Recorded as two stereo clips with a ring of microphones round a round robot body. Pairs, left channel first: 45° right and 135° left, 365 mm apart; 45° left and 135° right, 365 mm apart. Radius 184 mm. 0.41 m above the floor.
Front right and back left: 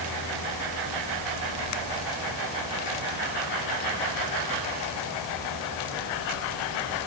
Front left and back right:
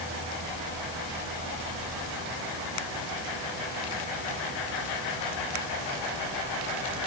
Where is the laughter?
No laughter in this recording.